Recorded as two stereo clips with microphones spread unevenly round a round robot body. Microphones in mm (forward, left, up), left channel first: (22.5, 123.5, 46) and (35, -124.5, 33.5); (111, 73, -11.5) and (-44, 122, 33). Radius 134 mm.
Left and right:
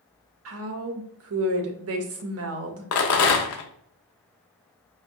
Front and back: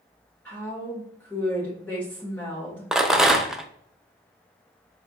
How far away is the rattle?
About 0.5 m.